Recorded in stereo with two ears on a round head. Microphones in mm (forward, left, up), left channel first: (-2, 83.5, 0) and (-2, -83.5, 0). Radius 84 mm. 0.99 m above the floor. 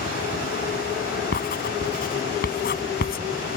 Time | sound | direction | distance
1.3 | writing | 50° left (ahead or behind) | ?